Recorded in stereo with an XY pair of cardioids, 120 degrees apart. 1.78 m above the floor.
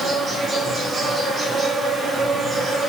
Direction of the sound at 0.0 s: 25° right.